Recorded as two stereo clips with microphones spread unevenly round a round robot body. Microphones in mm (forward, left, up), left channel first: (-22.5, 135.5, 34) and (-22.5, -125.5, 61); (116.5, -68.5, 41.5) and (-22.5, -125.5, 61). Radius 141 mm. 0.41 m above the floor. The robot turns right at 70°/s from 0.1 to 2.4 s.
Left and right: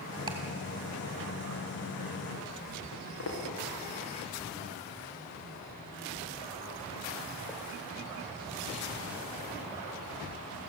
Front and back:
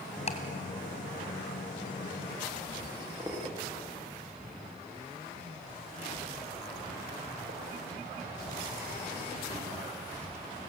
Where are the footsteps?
120° left, 7.5 m; by 9.5 s 170° right, 5.5 m.